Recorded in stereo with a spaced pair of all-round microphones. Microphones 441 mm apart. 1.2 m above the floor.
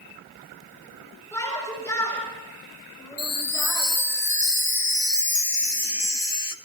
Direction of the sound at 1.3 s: 5° left (ahead or behind).